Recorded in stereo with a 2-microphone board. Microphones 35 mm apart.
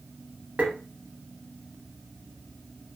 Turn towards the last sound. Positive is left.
turn(degrees=-40)  # may be behind; listen again after turning